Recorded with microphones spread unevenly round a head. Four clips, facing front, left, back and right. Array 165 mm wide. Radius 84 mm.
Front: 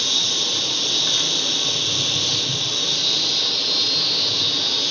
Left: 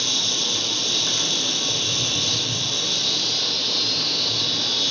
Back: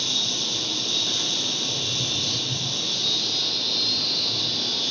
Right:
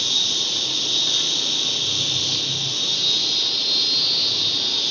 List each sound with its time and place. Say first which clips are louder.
0.0 s an insect: left 2 dB, front 3 dB; 40° left, 1.8 m